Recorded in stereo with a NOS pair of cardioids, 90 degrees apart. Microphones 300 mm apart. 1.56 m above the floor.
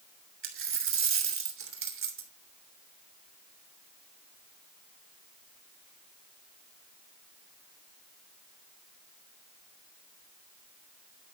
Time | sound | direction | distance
0.4 | a dropped coin | 45° right | 3 m